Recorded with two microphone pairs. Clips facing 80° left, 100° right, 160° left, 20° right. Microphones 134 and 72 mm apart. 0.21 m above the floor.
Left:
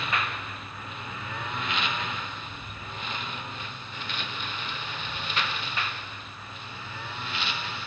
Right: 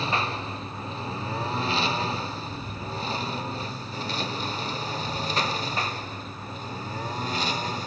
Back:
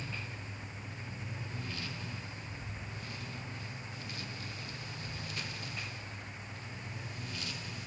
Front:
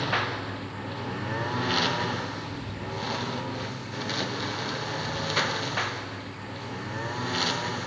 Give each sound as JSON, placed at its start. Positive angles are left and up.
{"t": 0.0, "sound": "a lawn mower", "azimuth_deg": -40}